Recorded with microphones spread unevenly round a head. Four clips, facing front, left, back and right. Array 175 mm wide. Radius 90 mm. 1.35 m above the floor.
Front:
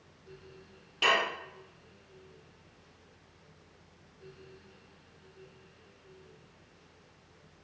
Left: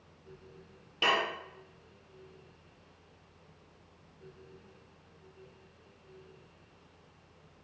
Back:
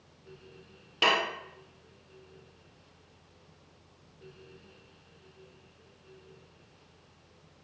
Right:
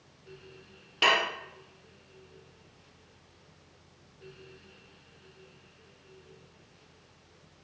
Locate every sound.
1.0 s dishes clattering: 145° right, 0.5 m